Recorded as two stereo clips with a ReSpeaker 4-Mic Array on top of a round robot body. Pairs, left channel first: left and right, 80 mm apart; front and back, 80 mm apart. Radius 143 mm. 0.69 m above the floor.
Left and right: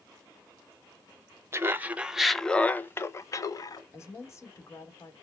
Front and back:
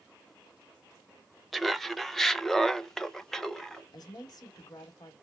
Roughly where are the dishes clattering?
I don't hear dishes clattering.